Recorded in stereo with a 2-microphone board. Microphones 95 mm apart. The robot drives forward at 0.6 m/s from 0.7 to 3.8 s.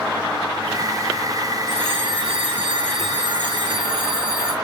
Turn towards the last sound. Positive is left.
turn(degrees=-55)  # may be behind; listen again after turning